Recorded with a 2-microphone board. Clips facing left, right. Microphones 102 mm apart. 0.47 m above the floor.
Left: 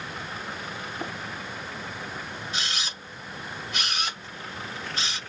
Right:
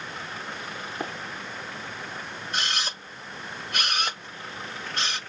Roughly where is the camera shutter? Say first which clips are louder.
Right 5 dB; right.